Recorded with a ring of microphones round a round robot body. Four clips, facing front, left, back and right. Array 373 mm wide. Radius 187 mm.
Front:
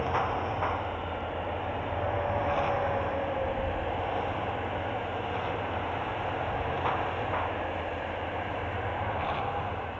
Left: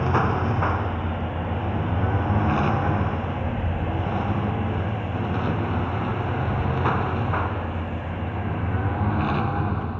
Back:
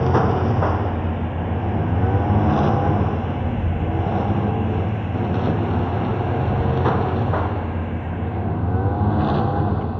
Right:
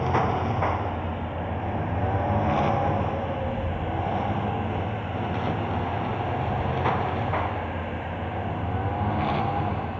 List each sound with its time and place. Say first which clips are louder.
0.0 s a lawn mower: left 1 dB, back 10 dB; 165° left